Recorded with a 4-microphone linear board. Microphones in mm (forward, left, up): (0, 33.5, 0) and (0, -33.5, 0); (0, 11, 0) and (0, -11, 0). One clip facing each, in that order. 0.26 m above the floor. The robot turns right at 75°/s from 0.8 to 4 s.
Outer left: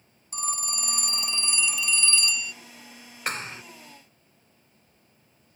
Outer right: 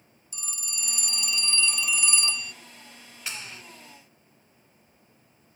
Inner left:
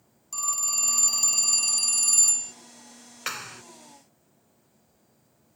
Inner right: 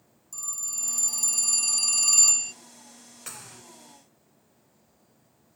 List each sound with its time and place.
0.3 s a phone ringing: 105° left; by 2.5 s 125° right
3.3 s a clap: 50° left (ahead or behind); by 3.6 s 30° left (ahead or behind)